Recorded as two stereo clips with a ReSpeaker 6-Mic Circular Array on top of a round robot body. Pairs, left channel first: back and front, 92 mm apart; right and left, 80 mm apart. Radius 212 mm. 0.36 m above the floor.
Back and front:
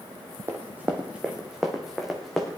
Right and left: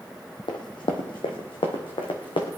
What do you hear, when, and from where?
0.5 s running footsteps: 65° right, 1.0 m; by 2.5 s 90° right, 2 m